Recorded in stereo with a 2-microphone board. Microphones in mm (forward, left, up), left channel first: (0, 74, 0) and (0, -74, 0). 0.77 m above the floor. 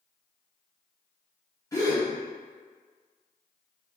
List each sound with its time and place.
1.7 s a gasp: 20° left (ahead or behind), 1.2 m